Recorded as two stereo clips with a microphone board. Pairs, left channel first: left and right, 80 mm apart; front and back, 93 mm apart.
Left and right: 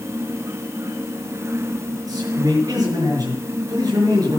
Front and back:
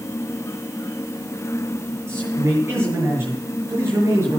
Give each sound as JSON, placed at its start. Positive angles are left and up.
{"t": 2.1, "sound": "a man speaking", "azimuth_deg": -120, "distance_m": 5.5}